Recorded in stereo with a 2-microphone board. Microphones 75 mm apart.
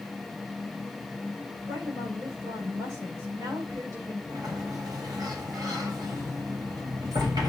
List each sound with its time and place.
1.7 s a woman speaking: 70° right (ahead or behind), 5 m
4.3 s a sliding door: 65° right (ahead or behind), 2.5 m